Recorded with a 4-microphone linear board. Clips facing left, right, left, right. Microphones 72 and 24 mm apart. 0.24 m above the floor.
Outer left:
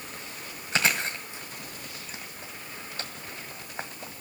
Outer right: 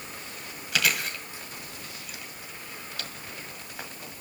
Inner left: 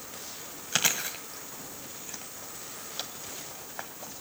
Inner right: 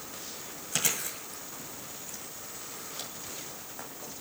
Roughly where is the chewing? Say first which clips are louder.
Outer left 1 dB, inner left 4 dB; left.